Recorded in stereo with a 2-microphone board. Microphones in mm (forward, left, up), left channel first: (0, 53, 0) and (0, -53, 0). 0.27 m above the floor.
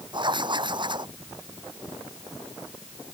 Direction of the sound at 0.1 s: 45° right (ahead or behind).